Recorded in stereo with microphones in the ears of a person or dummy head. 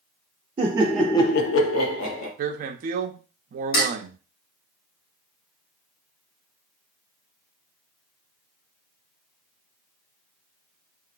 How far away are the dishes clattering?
About 1.1 m.